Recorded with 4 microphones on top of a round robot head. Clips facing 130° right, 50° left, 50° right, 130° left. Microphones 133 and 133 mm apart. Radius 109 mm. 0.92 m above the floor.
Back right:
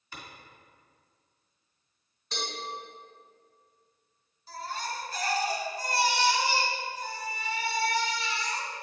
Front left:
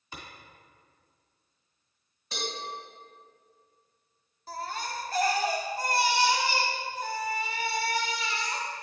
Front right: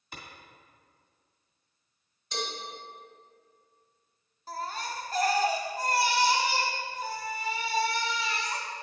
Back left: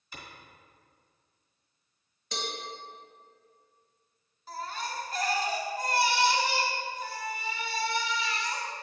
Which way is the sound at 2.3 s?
135° left.